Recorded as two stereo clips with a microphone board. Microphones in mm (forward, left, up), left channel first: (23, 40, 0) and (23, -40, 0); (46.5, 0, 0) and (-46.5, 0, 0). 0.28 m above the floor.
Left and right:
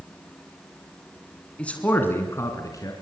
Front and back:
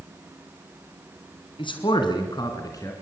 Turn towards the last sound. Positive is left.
turn(degrees=50)